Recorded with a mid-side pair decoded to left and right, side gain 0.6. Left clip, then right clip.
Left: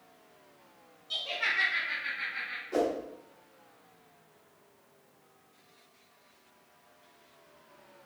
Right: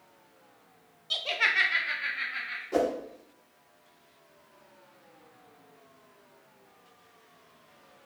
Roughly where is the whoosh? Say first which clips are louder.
Right 2 dB; ahead right.